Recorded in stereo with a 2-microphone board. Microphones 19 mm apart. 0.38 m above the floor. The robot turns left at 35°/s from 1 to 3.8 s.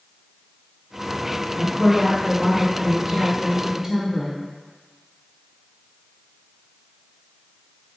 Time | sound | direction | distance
1.6 | a woman speaking | 5° right (ahead or behind) | 0.9 m